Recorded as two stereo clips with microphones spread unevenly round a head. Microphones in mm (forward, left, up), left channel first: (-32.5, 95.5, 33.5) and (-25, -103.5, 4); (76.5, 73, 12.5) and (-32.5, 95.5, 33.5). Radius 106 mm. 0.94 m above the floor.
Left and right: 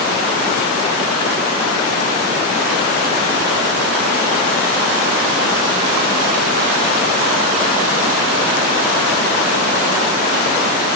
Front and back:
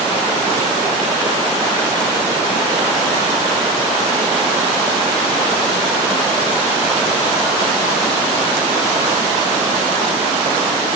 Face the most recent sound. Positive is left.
No sound to turn to.